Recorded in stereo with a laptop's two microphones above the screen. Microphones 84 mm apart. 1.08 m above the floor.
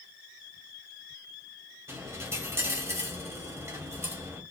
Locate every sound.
1.9 s a dropped coin: 35° right (ahead or behind), 1.2 m